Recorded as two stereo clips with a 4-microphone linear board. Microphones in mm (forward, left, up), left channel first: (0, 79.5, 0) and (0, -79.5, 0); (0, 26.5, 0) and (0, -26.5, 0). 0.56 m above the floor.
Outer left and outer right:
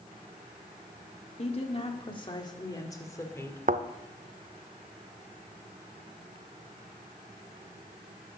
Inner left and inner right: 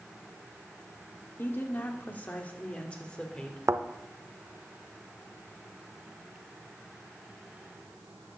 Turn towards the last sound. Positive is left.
turn(degrees=-60)  # may be behind; listen again after turning